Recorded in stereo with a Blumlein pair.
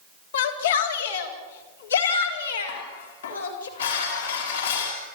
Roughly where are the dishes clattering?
Ahead left.